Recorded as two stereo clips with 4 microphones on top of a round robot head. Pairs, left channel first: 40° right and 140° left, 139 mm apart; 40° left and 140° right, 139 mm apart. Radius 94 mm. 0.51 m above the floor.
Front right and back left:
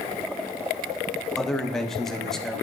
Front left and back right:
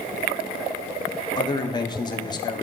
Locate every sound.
1.4 s a man speaking: 45° left, 0.8 m